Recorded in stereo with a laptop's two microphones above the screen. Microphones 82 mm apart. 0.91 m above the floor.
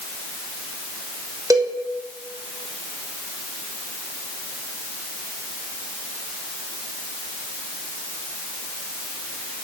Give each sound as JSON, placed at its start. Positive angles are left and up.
{"t": 1.5, "sound": "a cowbell", "side_deg": -45, "distance_m": 1.3}